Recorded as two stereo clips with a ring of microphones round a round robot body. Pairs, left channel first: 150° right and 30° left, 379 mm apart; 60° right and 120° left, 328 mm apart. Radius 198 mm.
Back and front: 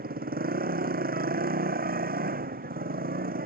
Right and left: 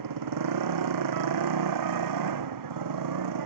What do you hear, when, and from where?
0.0 s a motorcycle: 100° left